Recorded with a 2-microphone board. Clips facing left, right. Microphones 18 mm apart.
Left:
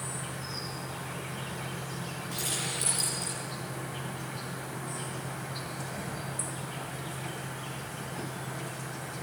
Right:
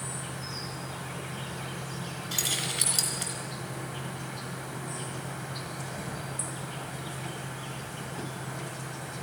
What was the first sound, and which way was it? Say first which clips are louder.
An insect: even; 10° right (ahead or behind).